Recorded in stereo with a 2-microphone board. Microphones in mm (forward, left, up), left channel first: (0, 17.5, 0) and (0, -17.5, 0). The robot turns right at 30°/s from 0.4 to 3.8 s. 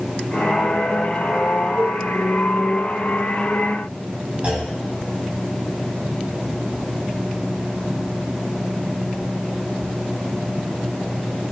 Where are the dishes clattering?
45° right (ahead or behind), 0.7 m; by 2.0 s 50° right (ahead or behind), 0.7 m.